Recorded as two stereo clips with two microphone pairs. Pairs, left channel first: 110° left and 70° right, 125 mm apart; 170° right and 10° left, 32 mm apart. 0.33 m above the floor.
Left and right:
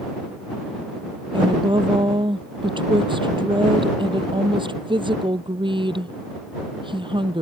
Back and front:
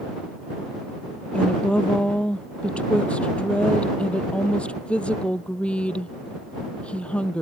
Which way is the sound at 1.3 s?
120° right.